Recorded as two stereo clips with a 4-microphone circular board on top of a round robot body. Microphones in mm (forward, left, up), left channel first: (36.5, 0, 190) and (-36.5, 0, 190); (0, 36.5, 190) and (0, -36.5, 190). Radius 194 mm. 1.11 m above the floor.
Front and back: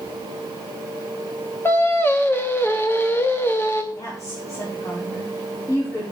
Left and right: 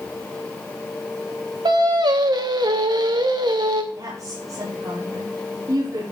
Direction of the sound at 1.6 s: 60° right.